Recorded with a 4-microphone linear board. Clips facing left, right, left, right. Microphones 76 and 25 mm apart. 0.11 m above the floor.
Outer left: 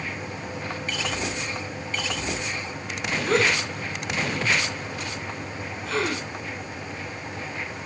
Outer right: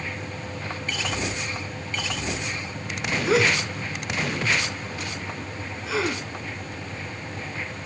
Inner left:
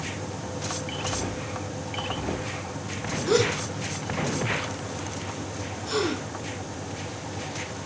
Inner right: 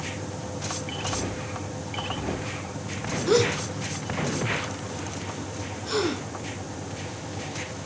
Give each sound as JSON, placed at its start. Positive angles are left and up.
{"t": 3.3, "sound": "a gasp", "side_deg": -5, "distance_m": 2.5}